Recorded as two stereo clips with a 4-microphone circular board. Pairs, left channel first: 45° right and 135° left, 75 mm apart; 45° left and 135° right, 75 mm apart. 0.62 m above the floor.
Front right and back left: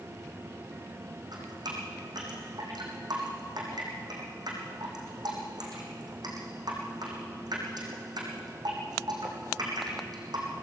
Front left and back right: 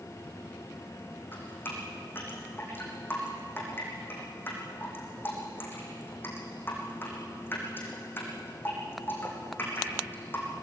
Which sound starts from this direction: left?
Dripping, at 1.3 s.